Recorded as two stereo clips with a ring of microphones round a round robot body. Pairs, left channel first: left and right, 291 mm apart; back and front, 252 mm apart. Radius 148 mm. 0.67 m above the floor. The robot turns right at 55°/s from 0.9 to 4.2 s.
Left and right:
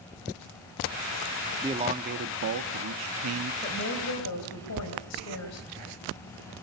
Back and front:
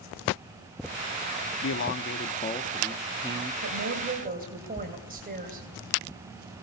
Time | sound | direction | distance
1.6 | a man speaking | 165° right | 1.0 m
3.6 | a woman speaking | 25° left | 3 m